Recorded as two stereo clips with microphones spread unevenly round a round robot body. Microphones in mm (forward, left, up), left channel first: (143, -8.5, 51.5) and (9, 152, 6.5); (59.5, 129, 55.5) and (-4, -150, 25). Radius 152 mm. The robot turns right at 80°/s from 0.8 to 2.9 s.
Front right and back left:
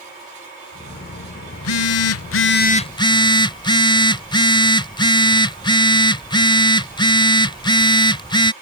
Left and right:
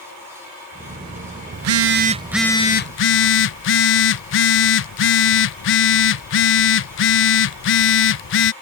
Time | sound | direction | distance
1.5 | a phone buzzing | 85° right | ?